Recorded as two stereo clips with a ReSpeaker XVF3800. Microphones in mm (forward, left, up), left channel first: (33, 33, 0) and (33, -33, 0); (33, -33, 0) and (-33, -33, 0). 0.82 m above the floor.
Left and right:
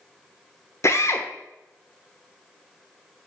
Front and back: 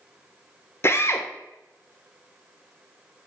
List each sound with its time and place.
0.8 s a drill: 45° left, 1.0 m